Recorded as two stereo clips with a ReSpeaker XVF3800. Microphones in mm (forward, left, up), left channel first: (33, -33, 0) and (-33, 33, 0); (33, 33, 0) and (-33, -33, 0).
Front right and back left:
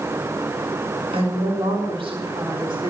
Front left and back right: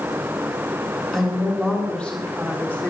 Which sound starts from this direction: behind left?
A woman speaking, at 1.1 s.